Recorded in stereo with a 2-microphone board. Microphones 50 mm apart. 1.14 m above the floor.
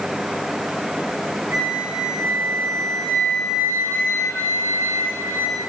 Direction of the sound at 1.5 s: 80° right.